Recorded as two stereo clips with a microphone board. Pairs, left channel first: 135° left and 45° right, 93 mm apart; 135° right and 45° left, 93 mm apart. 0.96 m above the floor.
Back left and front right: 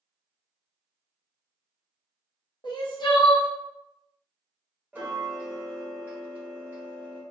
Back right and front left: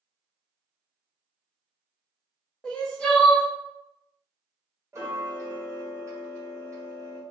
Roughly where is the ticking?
Ahead.